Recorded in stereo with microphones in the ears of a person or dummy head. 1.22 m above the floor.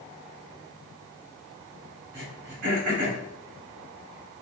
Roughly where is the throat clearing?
Right.